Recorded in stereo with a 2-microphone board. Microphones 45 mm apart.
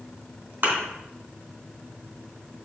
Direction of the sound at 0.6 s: 45° right (ahead or behind).